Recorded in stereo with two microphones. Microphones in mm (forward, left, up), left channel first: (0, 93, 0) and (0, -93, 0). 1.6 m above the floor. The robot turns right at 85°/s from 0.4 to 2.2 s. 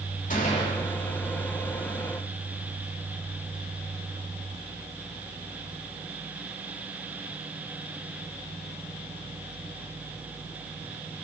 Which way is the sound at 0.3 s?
135° left.